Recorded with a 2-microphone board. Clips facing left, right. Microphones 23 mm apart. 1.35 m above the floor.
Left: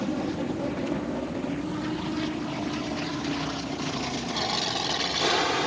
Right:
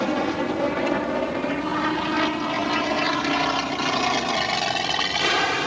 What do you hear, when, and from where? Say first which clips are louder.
0.0 s an aircraft: right 6 dB; 65° right (ahead or behind); by 5.7 s 60° right (ahead or behind)